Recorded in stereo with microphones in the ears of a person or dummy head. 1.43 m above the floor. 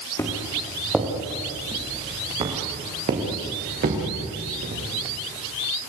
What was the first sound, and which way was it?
Footsteps, 15° left (ahead or behind).